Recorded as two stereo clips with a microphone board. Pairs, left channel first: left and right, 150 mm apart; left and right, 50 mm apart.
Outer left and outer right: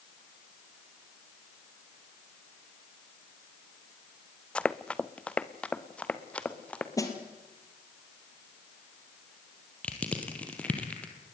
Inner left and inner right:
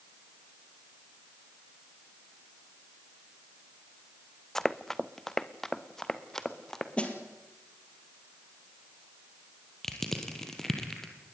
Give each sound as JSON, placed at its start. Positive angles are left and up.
{"t": 4.5, "sound": "running footsteps", "side_deg": 5, "distance_m": 0.6}
{"t": 7.0, "sound": "a snare drum", "side_deg": 20, "distance_m": 2.5}
{"t": 9.8, "sound": "crushing", "side_deg": 10, "distance_m": 2.5}